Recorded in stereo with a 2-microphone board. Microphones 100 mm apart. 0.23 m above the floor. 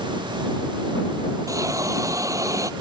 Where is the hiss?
35° right (ahead or behind).